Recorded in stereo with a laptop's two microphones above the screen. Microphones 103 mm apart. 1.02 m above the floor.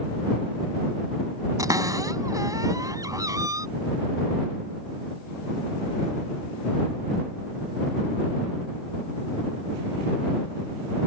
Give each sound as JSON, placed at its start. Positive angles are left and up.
{"t": 1.6, "sound": "a cupboard door", "side_deg": -35}